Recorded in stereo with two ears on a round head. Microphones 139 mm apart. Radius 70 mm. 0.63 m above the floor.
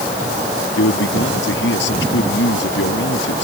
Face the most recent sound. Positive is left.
turn(degrees=85)